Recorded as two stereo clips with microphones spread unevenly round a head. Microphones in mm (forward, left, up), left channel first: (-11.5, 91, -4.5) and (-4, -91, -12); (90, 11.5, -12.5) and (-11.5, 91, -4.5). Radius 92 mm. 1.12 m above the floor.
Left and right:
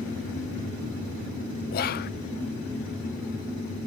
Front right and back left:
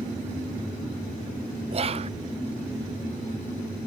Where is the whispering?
115° left.